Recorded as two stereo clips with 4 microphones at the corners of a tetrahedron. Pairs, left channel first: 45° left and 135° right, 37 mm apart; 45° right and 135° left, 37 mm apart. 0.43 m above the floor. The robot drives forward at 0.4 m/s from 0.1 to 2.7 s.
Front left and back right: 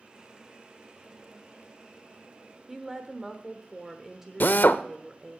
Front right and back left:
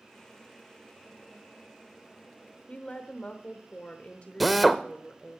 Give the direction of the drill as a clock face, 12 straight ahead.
11 o'clock.